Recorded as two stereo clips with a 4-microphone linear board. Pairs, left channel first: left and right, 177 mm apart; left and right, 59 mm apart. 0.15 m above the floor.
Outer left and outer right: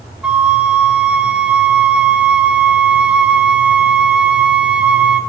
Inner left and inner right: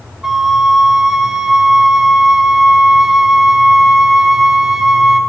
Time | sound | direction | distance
0.2 | a flute | 5° right (ahead or behind) | 0.9 m